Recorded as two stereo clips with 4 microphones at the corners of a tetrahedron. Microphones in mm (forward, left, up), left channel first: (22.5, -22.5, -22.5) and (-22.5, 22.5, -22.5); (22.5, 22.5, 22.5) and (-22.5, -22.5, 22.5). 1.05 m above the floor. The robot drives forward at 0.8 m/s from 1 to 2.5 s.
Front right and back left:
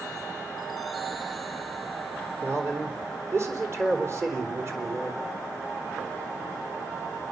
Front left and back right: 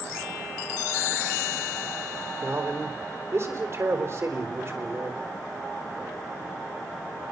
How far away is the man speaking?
About 3.5 m.